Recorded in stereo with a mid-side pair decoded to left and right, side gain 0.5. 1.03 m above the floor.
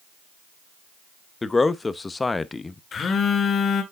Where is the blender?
I don't hear a blender.